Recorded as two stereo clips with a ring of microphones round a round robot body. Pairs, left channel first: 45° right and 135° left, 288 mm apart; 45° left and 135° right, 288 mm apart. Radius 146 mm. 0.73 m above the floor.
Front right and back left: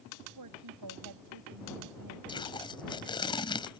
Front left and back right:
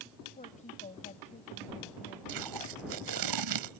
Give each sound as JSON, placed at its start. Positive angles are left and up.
{"t": 0.4, "sound": "a woman speaking", "azimuth_deg": 110}
{"t": 2.3, "sound": "tape being pulled", "azimuth_deg": -120}